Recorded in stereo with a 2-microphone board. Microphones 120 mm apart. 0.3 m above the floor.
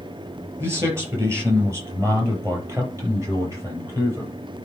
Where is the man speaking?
20° right (ahead or behind), 5.5 m; by 4.3 s 25° right (ahead or behind), 7.5 m.